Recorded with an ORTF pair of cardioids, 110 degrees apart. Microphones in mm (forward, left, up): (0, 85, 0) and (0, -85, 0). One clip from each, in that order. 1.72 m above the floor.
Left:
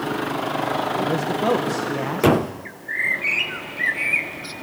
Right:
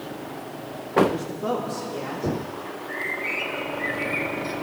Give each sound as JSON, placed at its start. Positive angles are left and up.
{"t": 1.1, "sound": "a man speaking", "azimuth_deg": 55, "distance_m": 1.7}
{"t": 2.6, "sound": "a bird", "azimuth_deg": 55, "distance_m": 1.2}